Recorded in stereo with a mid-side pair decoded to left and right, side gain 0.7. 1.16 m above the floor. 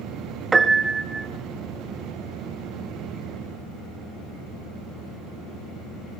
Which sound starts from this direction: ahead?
A piano, at 0.5 s.